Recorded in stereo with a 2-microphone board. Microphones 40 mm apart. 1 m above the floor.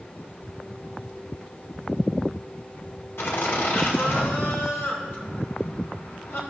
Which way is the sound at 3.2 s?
85° left.